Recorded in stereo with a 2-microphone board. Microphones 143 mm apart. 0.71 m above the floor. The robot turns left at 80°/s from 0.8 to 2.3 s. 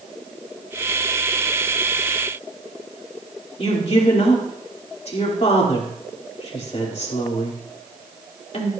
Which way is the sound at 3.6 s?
45° left (ahead or behind).